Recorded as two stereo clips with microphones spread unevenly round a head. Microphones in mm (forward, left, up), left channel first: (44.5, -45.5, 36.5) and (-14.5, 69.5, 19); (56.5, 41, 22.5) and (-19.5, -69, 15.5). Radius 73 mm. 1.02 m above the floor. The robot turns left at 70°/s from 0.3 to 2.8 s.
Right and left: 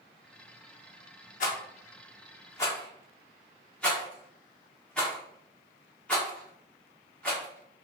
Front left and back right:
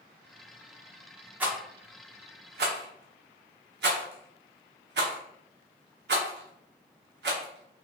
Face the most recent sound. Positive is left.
turn(degrees=-145)